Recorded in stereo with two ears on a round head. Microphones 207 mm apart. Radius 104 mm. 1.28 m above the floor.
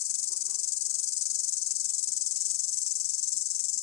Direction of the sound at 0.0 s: 80° left.